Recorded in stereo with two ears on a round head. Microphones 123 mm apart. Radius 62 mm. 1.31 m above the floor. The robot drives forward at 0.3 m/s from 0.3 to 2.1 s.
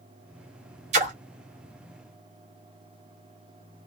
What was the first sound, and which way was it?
A splash, 50° right (ahead or behind).